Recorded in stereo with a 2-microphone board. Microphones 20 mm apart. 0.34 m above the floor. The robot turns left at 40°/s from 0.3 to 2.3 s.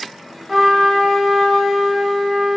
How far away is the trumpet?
About 0.8 m.